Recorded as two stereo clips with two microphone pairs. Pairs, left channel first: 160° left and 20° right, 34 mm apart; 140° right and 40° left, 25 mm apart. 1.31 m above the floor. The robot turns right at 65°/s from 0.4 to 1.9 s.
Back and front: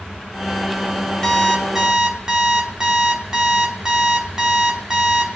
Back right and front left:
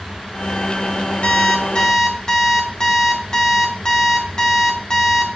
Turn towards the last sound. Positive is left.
turn(degrees=-90)